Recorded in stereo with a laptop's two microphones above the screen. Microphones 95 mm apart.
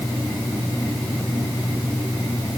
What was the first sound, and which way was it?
Only background noise.